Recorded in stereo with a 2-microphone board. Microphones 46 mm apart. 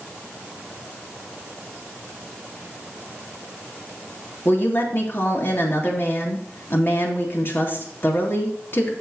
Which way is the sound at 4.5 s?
50° left (ahead or behind).